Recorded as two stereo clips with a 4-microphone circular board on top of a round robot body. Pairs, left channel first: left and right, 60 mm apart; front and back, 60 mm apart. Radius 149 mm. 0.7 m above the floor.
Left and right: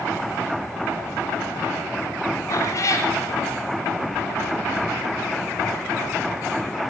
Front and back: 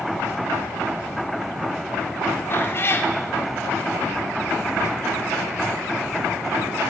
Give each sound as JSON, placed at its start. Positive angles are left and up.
{"t": 2.5, "sound": "a cat meowing", "azimuth_deg": 50, "distance_m": 0.6}